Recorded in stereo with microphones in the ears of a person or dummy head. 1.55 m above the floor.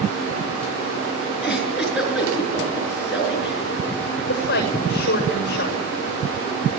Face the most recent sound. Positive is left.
turn(degrees=50)  # may be behind; listen again after turning